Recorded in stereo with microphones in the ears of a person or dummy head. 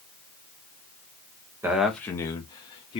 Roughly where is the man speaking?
Centre.